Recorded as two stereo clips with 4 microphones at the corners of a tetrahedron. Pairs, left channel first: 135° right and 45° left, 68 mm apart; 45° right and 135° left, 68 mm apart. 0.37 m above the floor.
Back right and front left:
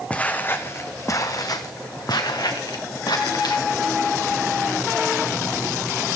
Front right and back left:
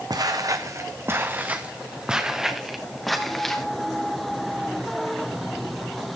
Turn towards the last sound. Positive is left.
turn(degrees=-130)